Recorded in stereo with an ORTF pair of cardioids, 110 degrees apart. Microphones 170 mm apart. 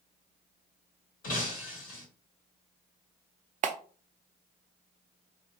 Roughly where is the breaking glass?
Ahead left.